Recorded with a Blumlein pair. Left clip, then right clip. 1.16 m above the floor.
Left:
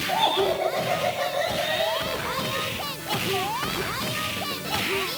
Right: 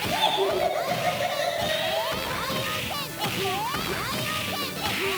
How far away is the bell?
I don't hear a bell.